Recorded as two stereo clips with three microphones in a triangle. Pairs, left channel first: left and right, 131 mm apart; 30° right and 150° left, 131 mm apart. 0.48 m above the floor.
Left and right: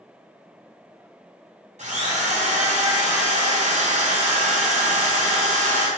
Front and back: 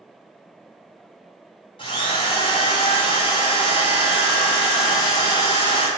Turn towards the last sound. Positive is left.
turn(degrees=-75)